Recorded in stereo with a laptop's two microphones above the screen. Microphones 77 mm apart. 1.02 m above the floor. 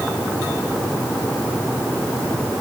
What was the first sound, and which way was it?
Only background noise.